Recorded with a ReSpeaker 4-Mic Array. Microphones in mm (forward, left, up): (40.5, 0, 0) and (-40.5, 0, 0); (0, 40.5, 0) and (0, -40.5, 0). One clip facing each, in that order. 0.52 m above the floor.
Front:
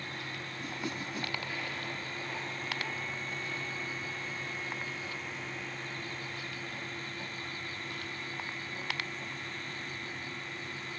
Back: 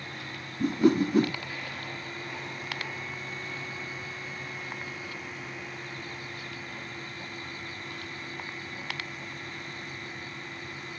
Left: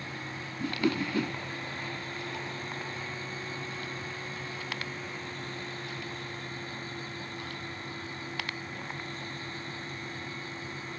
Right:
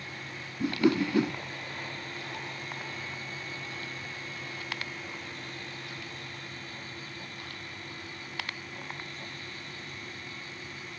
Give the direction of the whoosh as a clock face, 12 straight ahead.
5 o'clock.